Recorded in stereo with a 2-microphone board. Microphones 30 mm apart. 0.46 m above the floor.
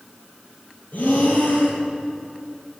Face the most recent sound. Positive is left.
turn(degrees=60)  # may be behind; listen again after turning